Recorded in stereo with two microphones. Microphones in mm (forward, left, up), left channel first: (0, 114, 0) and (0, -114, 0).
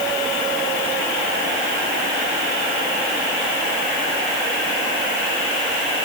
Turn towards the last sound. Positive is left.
No sound to turn to.